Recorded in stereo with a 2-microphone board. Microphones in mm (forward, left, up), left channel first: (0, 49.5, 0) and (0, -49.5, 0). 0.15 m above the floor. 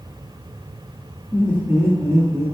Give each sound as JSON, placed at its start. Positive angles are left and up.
{"t": 1.3, "sound": "laughter", "side_deg": 20, "distance_m": 1.2}